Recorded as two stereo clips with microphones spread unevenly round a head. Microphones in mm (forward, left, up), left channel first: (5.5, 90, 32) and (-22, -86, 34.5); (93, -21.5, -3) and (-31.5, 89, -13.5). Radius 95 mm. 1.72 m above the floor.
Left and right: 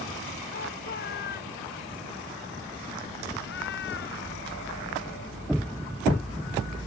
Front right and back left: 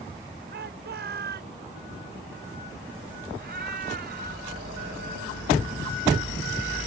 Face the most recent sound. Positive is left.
turn(degrees=110)